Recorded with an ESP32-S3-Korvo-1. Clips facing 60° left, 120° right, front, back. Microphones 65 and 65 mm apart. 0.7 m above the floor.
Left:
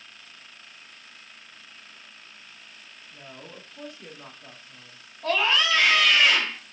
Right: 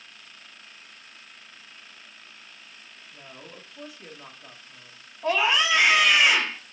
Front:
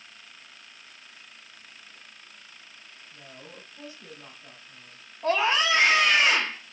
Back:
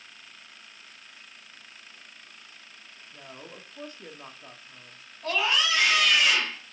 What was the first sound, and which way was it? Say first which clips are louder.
A woman speaking: left 1 dB, back 2 dB; 155° left.